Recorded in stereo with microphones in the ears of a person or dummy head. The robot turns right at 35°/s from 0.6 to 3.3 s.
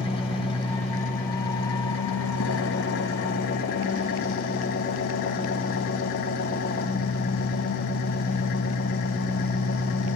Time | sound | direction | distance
0.0 | an engine running | 35° left | 2.5 m